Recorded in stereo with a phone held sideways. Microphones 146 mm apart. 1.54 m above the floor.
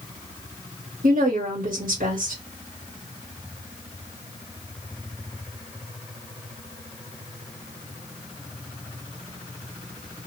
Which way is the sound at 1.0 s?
75° right (ahead or behind).